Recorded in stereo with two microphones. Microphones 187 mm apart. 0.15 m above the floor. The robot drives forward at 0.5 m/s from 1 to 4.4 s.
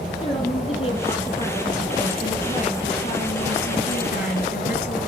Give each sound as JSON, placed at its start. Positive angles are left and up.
{"t": 0.2, "sound": "a woman speaking", "side_deg": 30, "distance_m": 3.0}